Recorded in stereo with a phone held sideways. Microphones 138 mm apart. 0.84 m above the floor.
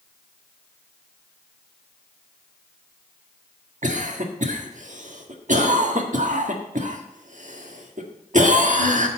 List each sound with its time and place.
3.8 s a cough: 70° right (ahead or behind), 1.5 m